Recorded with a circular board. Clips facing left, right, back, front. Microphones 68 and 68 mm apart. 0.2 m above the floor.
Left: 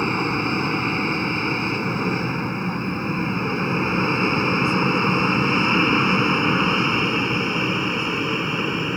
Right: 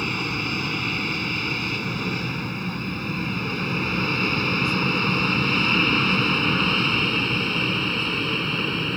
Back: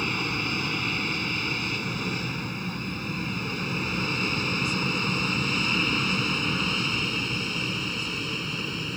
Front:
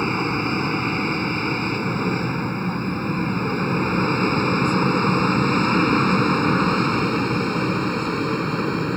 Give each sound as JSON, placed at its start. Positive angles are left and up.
{"t": 0.0, "sound": "an aircraft", "azimuth_deg": 45}